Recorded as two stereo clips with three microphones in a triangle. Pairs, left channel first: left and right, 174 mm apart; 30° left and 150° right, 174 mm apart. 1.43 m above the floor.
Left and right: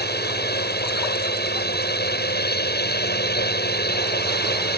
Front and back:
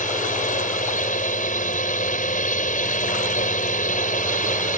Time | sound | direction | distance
0.0 | a drone | 70° left | ?